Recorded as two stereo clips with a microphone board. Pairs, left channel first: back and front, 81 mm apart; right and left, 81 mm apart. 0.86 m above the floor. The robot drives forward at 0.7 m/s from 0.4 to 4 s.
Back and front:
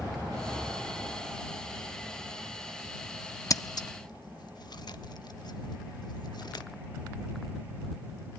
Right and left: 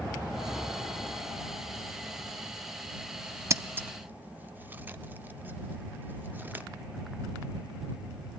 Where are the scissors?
140° left, 0.5 m; by 6.7 s 155° left, 0.8 m.